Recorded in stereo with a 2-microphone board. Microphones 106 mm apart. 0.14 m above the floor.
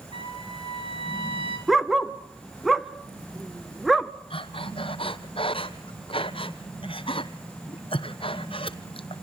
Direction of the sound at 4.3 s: 60° left (ahead or behind).